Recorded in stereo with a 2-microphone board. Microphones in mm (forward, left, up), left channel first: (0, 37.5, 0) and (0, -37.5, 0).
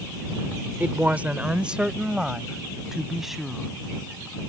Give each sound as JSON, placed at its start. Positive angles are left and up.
{"t": 0.8, "sound": "a woman speaking", "side_deg": -25}